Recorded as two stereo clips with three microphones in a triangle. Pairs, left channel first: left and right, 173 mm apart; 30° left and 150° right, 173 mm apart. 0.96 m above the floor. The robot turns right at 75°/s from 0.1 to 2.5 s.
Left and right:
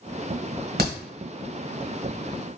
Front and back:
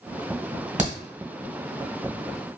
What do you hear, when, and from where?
0.8 s a crack: 105° right, 1.5 m; by 1.0 s 95° right, 1.5 m